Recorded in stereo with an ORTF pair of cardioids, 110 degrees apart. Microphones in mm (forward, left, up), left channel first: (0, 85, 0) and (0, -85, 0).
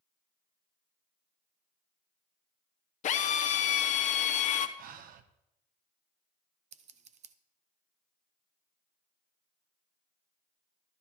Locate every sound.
3.0 s a drill: 50° left, 1.0 m
4.8 s breathing: 65° right, 0.9 m
6.7 s scissors: 45° right, 0.9 m